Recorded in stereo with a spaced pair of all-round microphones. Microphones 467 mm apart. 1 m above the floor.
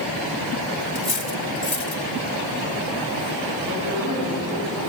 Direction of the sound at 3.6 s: 40° right (ahead or behind).